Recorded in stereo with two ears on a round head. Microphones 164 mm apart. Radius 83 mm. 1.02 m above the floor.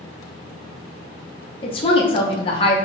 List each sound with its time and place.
1.6 s a woman speaking: 30° left (ahead or behind), 0.7 m